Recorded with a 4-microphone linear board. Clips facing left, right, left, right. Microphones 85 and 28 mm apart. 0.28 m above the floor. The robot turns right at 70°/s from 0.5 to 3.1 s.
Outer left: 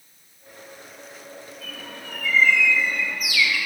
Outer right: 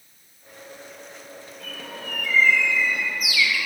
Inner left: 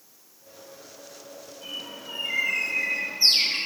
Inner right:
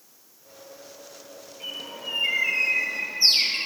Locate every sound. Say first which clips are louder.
1.6 s a bird: outer right 5 dB, inner right 3 dB; 115° right, 5 m; by 3.6 s 10° right, 5 m